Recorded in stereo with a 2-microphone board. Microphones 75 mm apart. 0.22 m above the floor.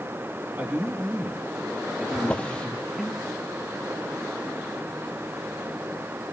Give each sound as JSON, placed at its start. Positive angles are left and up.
{"t": 0.6, "sound": "a man speaking", "side_deg": -30, "distance_m": 4.5}
{"t": 2.1, "sound": "a drawer", "side_deg": 15, "distance_m": 2.5}